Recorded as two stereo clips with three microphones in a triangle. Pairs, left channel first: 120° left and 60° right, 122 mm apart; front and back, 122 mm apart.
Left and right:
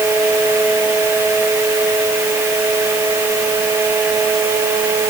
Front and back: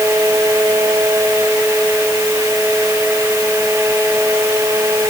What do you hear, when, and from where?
Only background noise.